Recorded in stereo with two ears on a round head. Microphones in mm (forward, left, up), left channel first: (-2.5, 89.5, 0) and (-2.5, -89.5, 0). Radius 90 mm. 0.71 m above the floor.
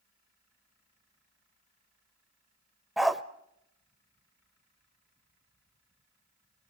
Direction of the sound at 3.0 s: Centre (ahead or behind).